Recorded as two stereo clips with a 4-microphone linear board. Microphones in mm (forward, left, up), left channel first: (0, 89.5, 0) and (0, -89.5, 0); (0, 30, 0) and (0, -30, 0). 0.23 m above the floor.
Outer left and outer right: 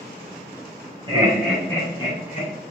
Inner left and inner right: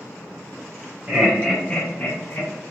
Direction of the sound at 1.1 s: 25° right (ahead or behind).